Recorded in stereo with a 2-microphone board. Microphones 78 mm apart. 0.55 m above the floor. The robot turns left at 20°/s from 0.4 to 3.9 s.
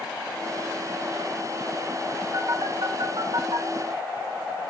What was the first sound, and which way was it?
A phone buzzing, 50° right (ahead or behind).